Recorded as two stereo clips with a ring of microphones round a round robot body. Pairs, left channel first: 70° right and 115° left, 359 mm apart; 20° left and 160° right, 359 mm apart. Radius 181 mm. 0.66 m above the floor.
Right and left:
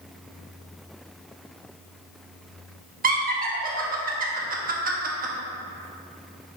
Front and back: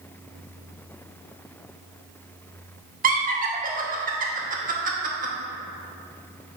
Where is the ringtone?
No ringtone in this recording.